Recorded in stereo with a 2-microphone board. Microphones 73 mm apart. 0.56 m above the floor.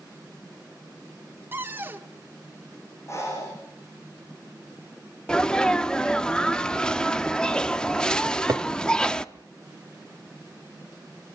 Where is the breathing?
40° left (ahead or behind), 6.5 m.